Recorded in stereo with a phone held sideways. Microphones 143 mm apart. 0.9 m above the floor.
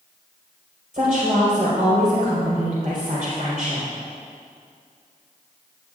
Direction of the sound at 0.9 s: 70° right (ahead or behind).